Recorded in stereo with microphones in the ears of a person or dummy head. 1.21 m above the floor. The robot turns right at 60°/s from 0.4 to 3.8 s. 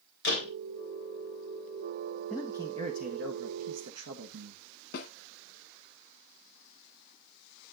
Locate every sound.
0.2 s a door slam: 85° left, 3.5 m; by 0.5 s 75° left (ahead or behind), 3.5 m
2.3 s a man speaking: straight behind, 1.4 m; by 4.6 s 90° right, 1.4 m
4.9 s a snare drum: 50° left (ahead or behind), 2 m